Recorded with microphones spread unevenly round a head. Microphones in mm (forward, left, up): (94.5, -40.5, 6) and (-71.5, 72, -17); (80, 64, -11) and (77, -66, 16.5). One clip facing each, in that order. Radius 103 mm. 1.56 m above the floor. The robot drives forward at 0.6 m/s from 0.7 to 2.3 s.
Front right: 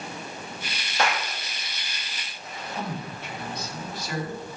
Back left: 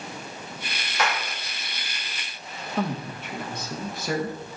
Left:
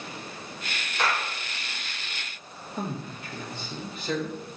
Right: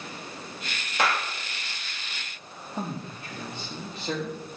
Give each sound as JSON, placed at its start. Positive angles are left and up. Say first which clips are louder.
{"t": 1.0, "sound": "a clap", "louder": "front right 1 dB, right 2 dB", "azimuth_deg": -95, "distance_m": 2.0}
{"t": 2.8, "sound": "a man speaking", "louder": "back left 6 dB, left 1 dB", "azimuth_deg": -165, "distance_m": 1.9}